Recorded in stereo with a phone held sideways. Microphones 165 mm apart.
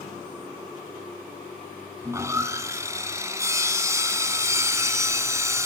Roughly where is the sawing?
Centre.